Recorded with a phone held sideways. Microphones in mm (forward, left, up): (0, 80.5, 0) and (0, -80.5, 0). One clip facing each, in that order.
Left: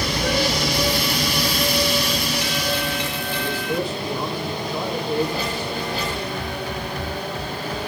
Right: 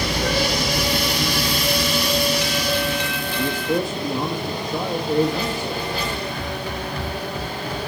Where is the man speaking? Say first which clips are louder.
Right 3 dB; 45° right (ahead or behind), 1.7 m.